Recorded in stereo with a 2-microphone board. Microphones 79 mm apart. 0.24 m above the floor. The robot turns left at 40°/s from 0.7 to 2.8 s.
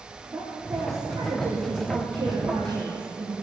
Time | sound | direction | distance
0.3 | a woman speaking | 35° right | 9.5 m